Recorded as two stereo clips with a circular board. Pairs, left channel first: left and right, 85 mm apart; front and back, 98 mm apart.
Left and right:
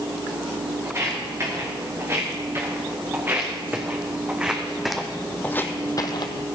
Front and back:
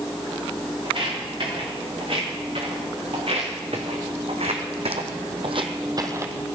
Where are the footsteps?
145° right, 4.5 m; by 6.5 s 110° left, 1.0 m.